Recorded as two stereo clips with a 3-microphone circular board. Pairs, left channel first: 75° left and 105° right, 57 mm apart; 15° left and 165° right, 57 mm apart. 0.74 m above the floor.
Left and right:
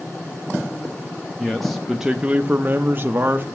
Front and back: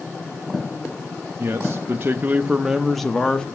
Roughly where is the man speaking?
Behind left.